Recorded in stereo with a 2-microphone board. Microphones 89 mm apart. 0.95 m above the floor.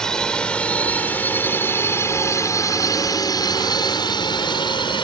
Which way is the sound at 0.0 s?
5° left (ahead or behind).